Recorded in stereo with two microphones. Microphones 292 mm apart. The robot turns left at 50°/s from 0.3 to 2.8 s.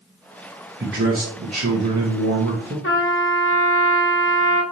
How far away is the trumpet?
About 0.6 m.